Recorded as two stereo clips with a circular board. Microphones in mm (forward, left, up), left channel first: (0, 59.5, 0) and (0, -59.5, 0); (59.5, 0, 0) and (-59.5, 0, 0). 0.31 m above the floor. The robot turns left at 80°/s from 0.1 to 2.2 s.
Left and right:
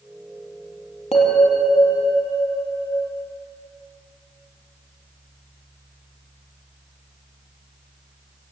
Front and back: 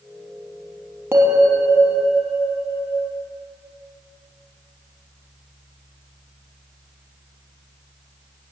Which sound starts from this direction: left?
A bell, at 1.1 s.